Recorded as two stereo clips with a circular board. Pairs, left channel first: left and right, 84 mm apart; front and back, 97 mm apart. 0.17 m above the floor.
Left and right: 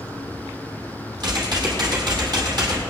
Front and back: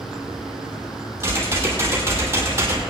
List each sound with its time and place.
1.2 s typing on a keyboard: 120° right, 3.5 m